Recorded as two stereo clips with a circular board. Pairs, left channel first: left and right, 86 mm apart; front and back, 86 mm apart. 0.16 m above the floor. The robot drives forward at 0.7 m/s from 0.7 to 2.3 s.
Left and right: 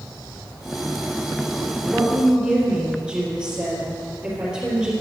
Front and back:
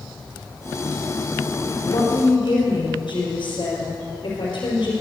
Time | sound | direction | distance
1.9 | a woman speaking | 10° right | 4.5 m